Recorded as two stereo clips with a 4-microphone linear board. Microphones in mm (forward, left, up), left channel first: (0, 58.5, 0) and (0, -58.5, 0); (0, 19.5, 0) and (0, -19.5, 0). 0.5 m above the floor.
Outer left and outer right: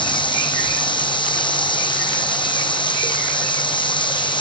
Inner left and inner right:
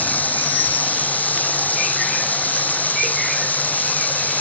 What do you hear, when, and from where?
0.0 s running water: 45° left (ahead or behind)